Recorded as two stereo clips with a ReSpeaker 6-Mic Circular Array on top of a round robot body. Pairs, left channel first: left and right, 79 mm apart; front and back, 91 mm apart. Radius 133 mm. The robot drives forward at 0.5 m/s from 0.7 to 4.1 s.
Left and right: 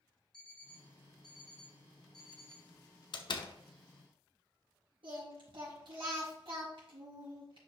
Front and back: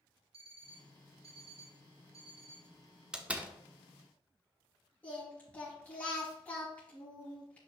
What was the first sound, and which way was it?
An alarm clock, 170° left.